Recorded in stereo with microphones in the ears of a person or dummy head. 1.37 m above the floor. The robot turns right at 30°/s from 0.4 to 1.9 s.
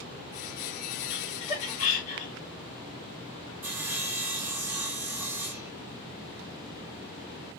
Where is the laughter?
20° left (ahead or behind), 2.5 m; by 2.3 s 40° left (ahead or behind), 2.5 m.